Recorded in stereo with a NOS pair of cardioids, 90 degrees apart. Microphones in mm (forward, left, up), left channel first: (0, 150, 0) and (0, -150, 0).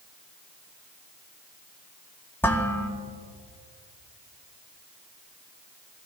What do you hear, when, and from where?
2.4 s dishes clattering: 5° left, 2.5 m